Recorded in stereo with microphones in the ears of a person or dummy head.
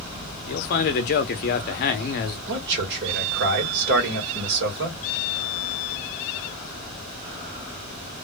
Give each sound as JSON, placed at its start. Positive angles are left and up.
{"t": 0.5, "sound": "a man speaking", "side_deg": 50, "distance_m": 0.6}
{"t": 2.5, "sound": "a man speaking", "side_deg": -60, "distance_m": 1.4}